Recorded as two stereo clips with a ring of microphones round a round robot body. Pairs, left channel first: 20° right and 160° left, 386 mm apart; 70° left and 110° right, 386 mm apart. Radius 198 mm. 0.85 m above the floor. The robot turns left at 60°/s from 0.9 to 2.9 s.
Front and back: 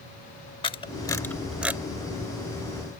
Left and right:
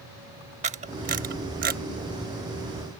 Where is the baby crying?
No baby crying in this recording.